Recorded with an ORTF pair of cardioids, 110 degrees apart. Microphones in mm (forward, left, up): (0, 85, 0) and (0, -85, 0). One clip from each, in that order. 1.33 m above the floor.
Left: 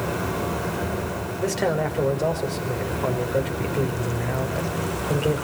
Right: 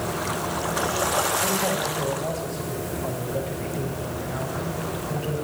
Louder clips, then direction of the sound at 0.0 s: Left 1 dB; 45° left.